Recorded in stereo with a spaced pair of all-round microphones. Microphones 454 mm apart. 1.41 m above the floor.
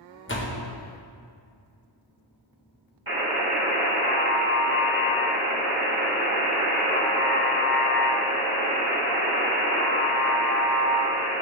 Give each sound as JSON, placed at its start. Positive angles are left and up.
{"t": 0.3, "sound": "a door slam", "side_deg": 25, "distance_m": 0.8}
{"t": 3.1, "sound": "a buzzer", "side_deg": -50, "distance_m": 1.7}